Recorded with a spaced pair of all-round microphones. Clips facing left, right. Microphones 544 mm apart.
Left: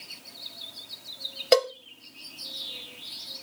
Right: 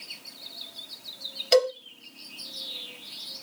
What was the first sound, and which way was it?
A cowbell, 70° left (ahead or behind).